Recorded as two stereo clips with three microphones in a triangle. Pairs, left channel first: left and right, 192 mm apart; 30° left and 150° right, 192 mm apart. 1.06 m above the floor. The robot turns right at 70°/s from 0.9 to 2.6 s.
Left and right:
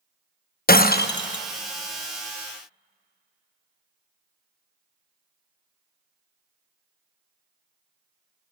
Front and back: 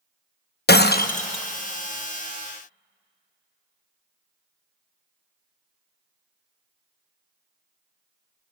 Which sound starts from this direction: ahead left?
Breaking glass, at 0.7 s.